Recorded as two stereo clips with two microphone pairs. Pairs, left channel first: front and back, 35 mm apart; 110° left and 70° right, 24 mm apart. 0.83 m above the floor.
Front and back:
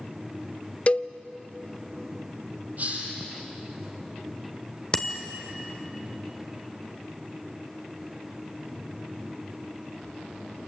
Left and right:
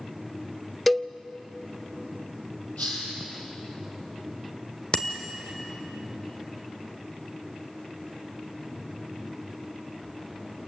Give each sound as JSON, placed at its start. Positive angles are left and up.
{"t": 0.9, "sound": "a cowbell", "azimuth_deg": 30, "distance_m": 0.7}
{"t": 2.8, "sound": "a hiss", "azimuth_deg": 140, "distance_m": 6.5}
{"t": 4.9, "sound": "a bicycle bell", "azimuth_deg": 65, "distance_m": 2.0}